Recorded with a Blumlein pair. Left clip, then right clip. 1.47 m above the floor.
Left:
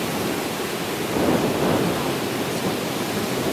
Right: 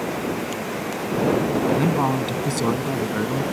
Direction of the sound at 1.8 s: 60° right.